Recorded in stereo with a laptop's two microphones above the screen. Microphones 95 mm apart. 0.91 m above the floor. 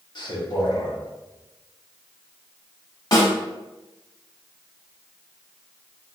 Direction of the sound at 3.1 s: 45° left (ahead or behind).